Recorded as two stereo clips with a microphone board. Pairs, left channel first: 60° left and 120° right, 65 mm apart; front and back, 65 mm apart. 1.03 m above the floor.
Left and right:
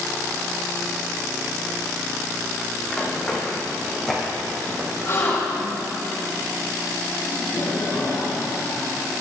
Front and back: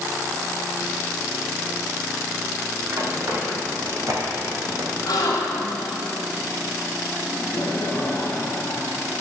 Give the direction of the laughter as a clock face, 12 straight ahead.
11 o'clock.